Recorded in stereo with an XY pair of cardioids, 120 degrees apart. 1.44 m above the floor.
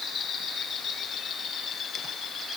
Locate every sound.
Only background noise.